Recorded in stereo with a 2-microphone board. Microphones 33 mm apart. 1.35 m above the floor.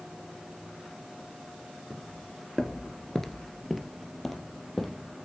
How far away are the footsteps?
About 2 m.